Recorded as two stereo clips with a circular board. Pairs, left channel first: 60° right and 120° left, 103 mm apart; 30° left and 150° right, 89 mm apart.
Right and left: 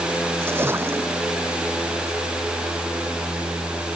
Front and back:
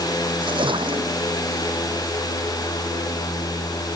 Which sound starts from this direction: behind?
A splash, at 0.4 s.